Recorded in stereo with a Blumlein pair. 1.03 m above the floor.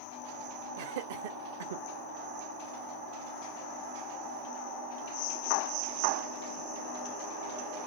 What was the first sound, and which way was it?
Laughter, 55° right.